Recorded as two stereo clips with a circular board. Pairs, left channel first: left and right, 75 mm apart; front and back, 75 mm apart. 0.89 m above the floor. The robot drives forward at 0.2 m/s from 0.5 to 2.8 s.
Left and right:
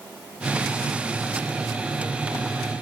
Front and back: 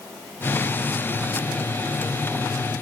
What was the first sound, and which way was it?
Only background noise.